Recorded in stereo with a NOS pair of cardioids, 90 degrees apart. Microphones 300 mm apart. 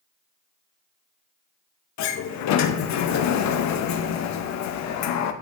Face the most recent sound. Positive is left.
turn(degrees=65)